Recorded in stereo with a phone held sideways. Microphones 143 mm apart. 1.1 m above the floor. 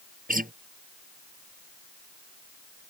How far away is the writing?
No writing in this recording.